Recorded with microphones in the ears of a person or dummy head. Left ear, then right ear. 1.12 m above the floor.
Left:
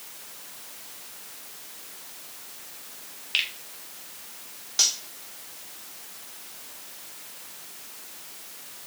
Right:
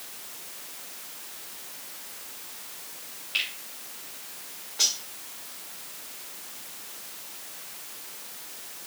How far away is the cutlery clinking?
About 2 m.